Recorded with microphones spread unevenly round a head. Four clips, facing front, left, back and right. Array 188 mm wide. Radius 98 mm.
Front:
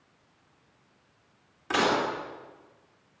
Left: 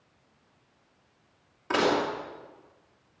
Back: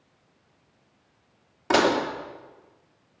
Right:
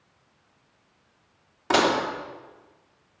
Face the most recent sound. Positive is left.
turn(degrees=-160)